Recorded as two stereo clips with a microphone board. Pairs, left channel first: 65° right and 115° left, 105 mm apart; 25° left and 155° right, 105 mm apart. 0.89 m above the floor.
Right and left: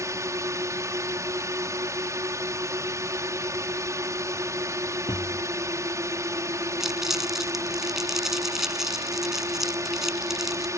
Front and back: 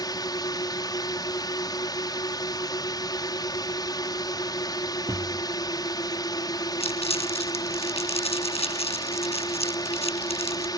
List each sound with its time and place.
0.0 s a drone: 60° left
5.1 s a thud: 100° right
6.8 s crumpling: 25° left